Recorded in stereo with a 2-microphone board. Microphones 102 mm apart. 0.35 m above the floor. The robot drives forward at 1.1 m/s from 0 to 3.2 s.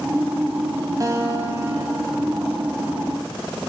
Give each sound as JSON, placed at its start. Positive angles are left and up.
{"t": 1.0, "sound": "a guitar", "side_deg": -35, "distance_m": 0.9}